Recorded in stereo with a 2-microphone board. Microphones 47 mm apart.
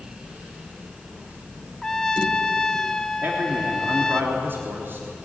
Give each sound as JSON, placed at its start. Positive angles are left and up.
{"t": 1.8, "sound": "a trumpet", "side_deg": 15, "distance_m": 0.8}
{"t": 3.2, "sound": "a man speaking", "side_deg": -55, "distance_m": 3.5}